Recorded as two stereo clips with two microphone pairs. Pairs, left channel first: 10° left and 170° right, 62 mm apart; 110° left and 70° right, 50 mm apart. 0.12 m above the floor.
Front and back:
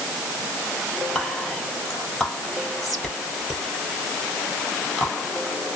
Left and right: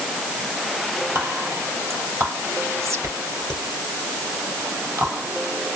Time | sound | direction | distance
1.1 | whispering | 80° right | 2.5 m